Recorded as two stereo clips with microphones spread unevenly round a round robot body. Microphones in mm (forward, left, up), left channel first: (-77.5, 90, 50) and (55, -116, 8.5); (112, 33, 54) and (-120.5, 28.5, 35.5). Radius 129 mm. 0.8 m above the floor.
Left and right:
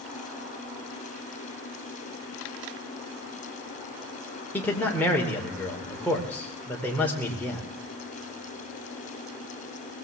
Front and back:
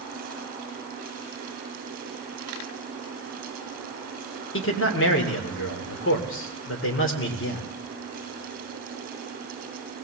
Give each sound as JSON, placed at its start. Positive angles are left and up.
{"t": 4.5, "sound": "a man speaking", "azimuth_deg": 35, "distance_m": 2.5}